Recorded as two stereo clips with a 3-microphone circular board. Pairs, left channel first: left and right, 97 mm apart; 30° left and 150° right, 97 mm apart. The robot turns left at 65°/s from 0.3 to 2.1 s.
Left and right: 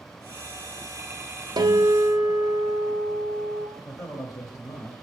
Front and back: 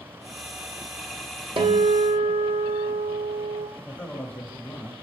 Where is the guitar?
135° right, 1.1 m; by 3.7 s 170° right, 1.1 m.